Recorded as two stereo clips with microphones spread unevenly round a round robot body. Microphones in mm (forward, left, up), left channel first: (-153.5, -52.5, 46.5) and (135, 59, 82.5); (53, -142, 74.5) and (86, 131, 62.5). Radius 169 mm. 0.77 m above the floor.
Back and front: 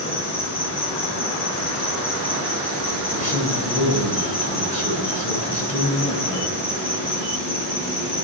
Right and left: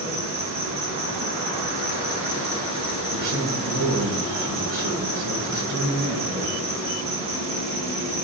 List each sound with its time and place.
0.0 s an insect: 150° left, 9.5 m
3.1 s a man speaking: 135° left, 9 m